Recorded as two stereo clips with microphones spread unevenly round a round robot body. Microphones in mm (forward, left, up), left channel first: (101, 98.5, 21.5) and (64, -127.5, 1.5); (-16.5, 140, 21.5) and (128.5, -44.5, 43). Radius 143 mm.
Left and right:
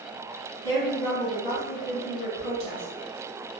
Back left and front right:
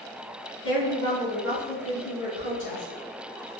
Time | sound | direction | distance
0.6 | a woman speaking | 165° left | 1.9 m